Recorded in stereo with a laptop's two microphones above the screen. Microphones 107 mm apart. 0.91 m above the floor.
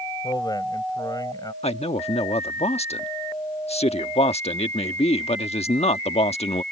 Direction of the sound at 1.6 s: 80° left.